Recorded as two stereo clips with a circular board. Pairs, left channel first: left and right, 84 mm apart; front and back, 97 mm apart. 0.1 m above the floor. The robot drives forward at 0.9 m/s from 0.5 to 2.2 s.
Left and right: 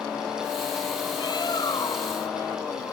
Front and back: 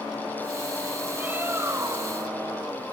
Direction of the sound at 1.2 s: 110° left.